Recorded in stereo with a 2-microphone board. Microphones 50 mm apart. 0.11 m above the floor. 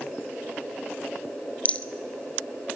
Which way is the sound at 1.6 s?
30° left (ahead or behind).